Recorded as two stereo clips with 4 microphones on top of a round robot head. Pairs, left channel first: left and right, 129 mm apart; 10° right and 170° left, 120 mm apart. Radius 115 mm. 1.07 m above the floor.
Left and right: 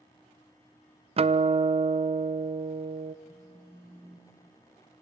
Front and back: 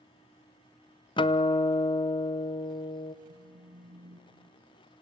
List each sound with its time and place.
1.2 s a guitar: 50° right, 0.6 m
3.2 s a phone buzzing: 165° right, 8.5 m